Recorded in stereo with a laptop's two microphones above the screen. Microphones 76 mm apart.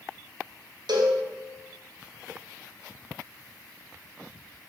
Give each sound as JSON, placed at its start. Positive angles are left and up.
{"t": 0.9, "sound": "a cowbell", "side_deg": -75, "distance_m": 1.1}